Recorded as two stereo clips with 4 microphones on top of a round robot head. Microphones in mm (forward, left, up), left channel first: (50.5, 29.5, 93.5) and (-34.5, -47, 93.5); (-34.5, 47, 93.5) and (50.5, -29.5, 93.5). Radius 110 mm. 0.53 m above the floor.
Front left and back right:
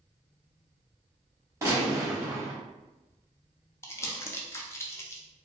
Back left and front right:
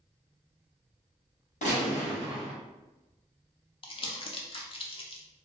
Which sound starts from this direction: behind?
A gunshot, at 1.6 s.